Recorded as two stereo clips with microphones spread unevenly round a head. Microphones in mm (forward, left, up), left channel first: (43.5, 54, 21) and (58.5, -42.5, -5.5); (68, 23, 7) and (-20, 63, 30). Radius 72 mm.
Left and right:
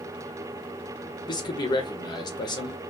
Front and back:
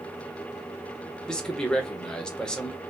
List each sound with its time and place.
1.3 s a man speaking: 50° left, 1.0 m